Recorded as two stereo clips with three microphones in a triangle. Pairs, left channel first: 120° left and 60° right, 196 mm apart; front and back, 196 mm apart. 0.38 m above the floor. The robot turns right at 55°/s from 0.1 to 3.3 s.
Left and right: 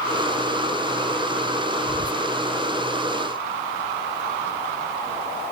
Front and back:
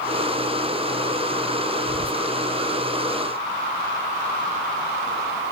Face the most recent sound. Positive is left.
turn(degrees=-65)